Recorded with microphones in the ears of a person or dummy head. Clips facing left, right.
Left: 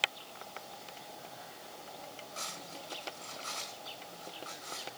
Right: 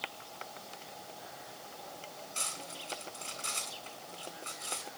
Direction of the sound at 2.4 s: 35° right (ahead or behind).